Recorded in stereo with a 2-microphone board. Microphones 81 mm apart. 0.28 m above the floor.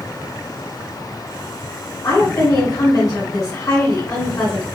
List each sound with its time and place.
2.0 s a woman speaking: 50° left (ahead or behind), 1.7 m